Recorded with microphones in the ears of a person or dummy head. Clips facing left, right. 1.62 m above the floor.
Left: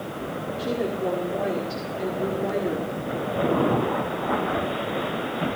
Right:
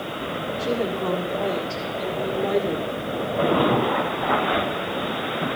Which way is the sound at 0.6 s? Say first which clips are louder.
Right 1 dB; 20° left (ahead or behind).